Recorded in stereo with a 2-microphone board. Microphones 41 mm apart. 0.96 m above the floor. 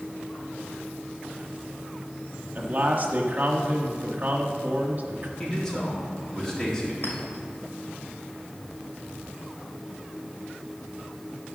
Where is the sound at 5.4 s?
10° left (ahead or behind), 2.5 m.